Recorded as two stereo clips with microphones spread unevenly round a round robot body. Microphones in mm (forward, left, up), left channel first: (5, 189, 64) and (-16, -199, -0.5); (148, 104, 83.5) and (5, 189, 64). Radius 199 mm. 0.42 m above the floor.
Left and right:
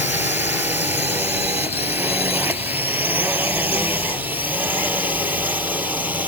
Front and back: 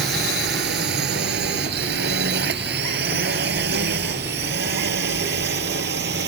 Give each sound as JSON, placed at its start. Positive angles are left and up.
{"t": 0.0, "sound": "a drone", "azimuth_deg": 180}